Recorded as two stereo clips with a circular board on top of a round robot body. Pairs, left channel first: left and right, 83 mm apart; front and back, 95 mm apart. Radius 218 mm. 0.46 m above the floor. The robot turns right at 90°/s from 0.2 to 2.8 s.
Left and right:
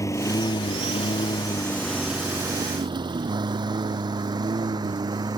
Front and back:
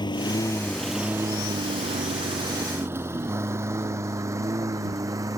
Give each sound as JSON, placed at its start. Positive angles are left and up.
{"t": 0.0, "sound": "a lawn mower", "azimuth_deg": 40}